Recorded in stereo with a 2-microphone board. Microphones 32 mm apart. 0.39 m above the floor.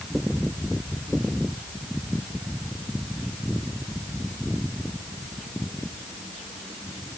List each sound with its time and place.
Only background noise.